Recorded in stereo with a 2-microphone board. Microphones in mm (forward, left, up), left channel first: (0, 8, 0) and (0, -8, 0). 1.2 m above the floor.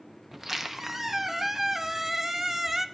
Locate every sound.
0.3 s a squeak: 20° right (ahead or behind), 0.5 m